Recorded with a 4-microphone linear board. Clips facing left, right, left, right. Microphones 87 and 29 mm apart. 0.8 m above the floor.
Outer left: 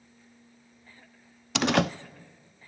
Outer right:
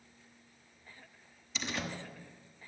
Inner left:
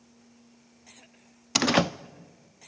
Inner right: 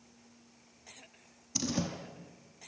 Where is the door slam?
70° left (ahead or behind), 0.8 m.